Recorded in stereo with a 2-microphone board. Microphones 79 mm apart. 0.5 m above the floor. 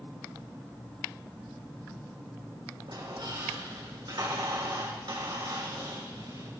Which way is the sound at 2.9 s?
85° right.